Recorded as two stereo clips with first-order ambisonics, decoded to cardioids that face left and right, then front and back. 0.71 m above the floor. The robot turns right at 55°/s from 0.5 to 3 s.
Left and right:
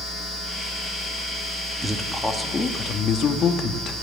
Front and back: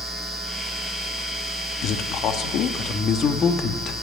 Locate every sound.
1.8 s a man speaking: 15° right, 1.5 m; by 3.9 s 50° left, 1.5 m